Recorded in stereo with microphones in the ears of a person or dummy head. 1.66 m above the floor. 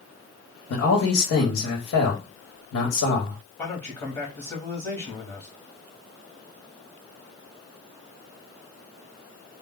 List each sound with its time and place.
0.7 s a man speaking: 70° left (ahead or behind), 1.0 m
3.6 s a man speaking: 15° left (ahead or behind), 0.8 m